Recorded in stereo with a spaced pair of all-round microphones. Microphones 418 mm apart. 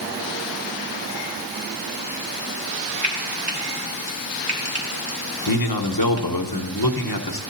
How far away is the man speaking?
About 0.9 m.